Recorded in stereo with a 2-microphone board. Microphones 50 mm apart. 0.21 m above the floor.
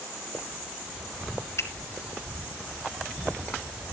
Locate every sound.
1.6 s a finger snap: 60° left (ahead or behind), 3 m